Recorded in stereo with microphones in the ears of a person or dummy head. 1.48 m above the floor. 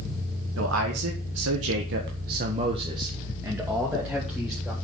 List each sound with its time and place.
0.6 s a man speaking: 65° right (ahead or behind), 2.5 m; by 4.7 s 5° left (ahead or behind), 3.5 m